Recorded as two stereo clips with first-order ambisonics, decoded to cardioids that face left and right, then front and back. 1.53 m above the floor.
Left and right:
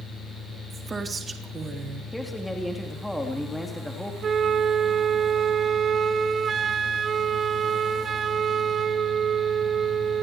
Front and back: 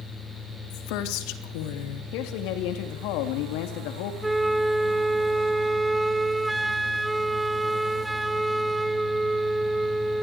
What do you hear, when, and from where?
0.7 s a woman speaking: 15° right, 3.5 m
2.1 s a man speaking: 5° left, 3.5 m
4.2 s a flute: 105° right, 0.9 m